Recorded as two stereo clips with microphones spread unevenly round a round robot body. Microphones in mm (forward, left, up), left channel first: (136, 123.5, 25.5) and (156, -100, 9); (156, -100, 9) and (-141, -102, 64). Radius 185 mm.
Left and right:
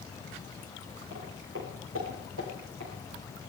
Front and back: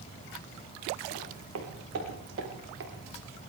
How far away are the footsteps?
About 4.5 m.